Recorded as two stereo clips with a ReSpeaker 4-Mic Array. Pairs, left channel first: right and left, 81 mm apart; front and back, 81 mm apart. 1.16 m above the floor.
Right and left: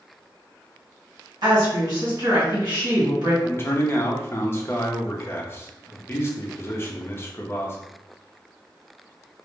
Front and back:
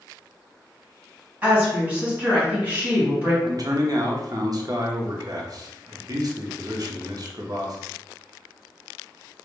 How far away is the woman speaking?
About 1.6 m.